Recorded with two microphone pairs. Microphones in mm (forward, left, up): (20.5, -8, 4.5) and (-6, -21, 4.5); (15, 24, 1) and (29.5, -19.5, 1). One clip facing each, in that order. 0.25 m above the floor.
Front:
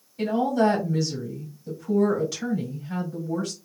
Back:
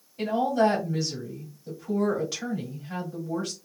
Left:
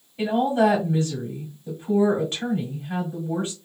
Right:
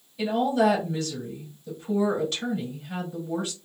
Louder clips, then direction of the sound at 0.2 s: Front 1 dB, left 2 dB; 135° left.